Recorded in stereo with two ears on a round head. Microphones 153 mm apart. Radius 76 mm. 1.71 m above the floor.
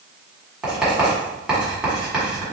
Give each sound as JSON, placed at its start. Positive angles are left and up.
{"t": 0.6, "sound": "writing", "side_deg": -5, "distance_m": 1.8}